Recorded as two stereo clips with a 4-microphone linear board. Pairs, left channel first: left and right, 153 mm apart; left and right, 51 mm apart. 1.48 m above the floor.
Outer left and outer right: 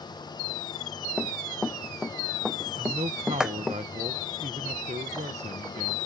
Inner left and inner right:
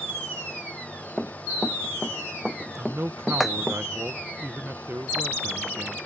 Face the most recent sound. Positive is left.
turn(degrees=-50)  # may be behind; listen again after turning